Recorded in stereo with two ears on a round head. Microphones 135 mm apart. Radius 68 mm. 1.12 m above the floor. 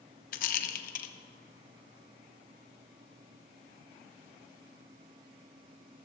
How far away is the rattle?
About 1.0 m.